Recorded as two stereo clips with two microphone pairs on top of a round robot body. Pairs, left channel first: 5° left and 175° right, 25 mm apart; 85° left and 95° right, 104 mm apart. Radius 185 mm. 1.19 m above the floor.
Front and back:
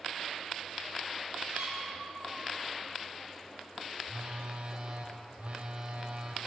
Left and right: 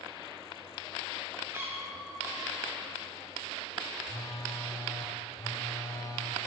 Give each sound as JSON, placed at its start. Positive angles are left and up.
{"t": 1.5, "sound": "a cat meowing", "azimuth_deg": -170, "distance_m": 0.9}
{"t": 4.0, "sound": "a phone buzzing", "azimuth_deg": 140, "distance_m": 0.5}